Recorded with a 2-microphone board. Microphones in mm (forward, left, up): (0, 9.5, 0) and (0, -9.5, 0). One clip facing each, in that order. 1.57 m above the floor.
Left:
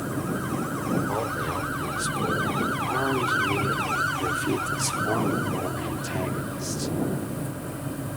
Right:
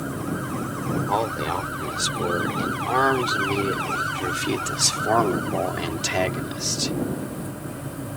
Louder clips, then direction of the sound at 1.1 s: Right 4 dB; 55° right (ahead or behind).